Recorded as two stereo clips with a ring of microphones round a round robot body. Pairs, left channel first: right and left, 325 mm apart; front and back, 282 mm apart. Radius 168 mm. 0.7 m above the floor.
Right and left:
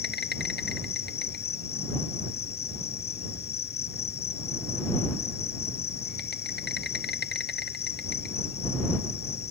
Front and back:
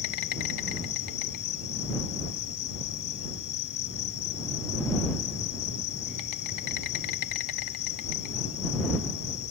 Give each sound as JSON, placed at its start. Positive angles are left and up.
{"t": 0.0, "sound": "an insect", "azimuth_deg": -30}